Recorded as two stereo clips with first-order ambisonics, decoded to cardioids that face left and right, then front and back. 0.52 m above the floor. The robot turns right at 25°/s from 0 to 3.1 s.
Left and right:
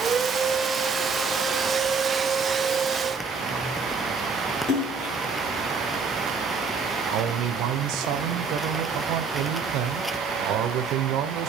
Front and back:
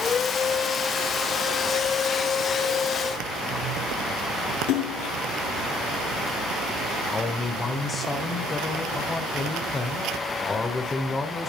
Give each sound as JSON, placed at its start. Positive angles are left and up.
{"t": 4.7, "sound": "a splash", "azimuth_deg": 25, "distance_m": 4.5}
{"t": 7.1, "sound": "a man speaking", "azimuth_deg": -75, "distance_m": 1.7}